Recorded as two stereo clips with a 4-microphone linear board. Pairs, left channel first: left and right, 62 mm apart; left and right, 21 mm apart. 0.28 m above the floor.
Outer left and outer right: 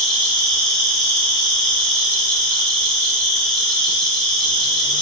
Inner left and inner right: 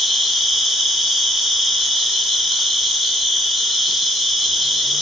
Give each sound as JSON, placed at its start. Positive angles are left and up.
{"t": 0.0, "sound": "an insect", "side_deg": 5, "distance_m": 1.0}